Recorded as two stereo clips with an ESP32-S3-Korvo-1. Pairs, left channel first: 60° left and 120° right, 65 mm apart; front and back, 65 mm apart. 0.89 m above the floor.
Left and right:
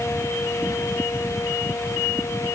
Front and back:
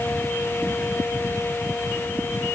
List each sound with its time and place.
Only background noise.